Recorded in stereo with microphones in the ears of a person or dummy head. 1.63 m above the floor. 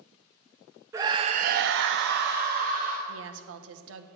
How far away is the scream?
About 0.9 m.